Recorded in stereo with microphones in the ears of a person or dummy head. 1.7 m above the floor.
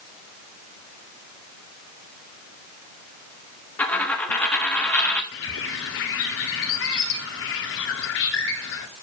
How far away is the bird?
About 1.9 m.